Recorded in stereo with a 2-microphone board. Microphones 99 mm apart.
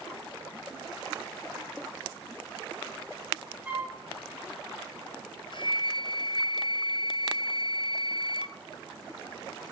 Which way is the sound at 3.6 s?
15° right (ahead or behind).